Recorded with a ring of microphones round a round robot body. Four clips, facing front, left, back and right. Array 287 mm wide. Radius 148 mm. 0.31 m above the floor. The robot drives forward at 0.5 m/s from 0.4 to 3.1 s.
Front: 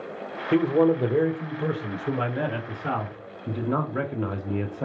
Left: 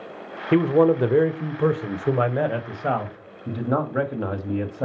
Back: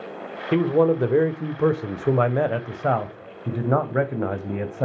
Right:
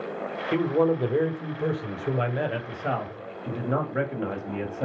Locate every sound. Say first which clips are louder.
0.5 s a man speaking: left 6 dB, back 1 dB; 100° left, 1.0 m; by 4.8 s 160° left, 1.7 m